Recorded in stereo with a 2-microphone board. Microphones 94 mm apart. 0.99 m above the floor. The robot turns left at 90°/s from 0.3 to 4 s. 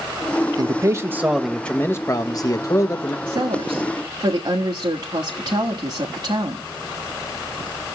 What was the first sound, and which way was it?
A man speaking, 100° right.